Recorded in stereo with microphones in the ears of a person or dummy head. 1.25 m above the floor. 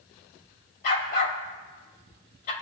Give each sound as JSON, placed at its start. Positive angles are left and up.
{"t": 0.8, "sound": "a dog barking", "side_deg": 55, "distance_m": 3.0}